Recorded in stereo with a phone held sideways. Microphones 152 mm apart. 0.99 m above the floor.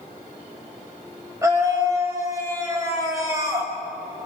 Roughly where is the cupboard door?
I don't hear a cupboard door.